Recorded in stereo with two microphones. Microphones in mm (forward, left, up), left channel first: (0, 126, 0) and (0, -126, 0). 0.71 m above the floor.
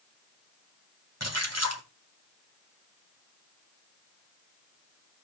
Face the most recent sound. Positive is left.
turn(degrees=-90)